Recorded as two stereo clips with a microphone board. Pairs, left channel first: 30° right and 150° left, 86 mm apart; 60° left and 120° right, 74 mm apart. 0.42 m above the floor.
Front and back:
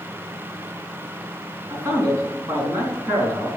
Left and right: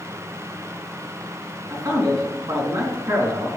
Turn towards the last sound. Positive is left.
turn(degrees=-155)